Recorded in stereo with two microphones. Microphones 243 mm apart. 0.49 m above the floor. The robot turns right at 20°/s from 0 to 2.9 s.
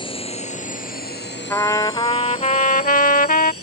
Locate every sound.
0.0 s a drone: 20° left (ahead or behind); by 3.6 s 75° left (ahead or behind)
1.5 s a trumpet: 10° left (ahead or behind); by 3.5 s 35° left (ahead or behind)